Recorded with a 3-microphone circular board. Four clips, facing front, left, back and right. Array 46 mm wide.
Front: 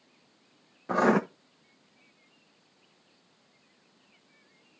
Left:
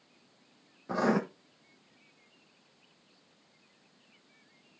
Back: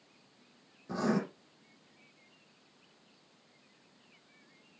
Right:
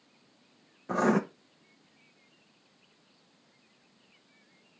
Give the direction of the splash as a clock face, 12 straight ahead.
I don't hear a splash.